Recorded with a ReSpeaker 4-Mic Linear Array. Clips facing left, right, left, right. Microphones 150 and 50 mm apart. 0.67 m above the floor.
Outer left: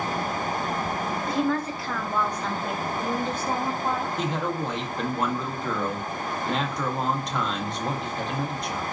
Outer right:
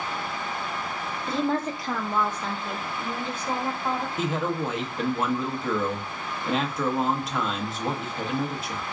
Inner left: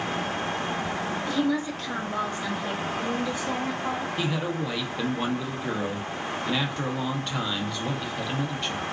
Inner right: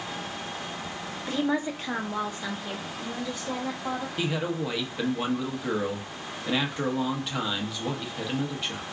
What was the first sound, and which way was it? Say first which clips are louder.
A woman speaking: outer right 1 dB, even; 30° right (ahead or behind).